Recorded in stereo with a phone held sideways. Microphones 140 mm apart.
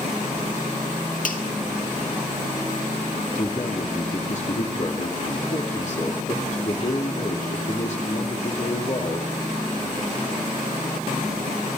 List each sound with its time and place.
1.2 s a finger snap: 70° left (ahead or behind), 1.7 m
3.4 s a man speaking: 55° left (ahead or behind), 2.5 m